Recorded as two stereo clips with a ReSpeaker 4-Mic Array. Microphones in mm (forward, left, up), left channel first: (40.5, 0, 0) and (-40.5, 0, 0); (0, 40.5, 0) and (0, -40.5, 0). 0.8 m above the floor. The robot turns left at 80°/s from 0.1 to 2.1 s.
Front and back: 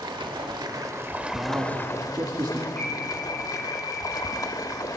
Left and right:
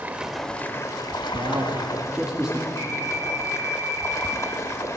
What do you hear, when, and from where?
0.0 s running water: 160° right, 1.1 m; by 5.0 s 40° left, 1.1 m
1.3 s a man speaking: 110° right, 1.5 m; by 2.7 s 170° right, 1.5 m
2.8 s an alarm: 75° left, 6 m